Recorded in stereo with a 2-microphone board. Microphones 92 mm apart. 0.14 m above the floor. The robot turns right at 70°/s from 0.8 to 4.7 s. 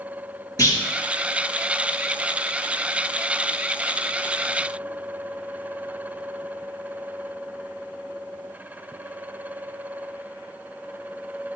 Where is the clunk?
40° left (ahead or behind), 2 m.